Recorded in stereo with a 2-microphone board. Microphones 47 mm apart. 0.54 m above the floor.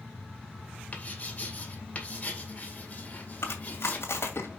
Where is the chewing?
60° left (ahead or behind), 2 m.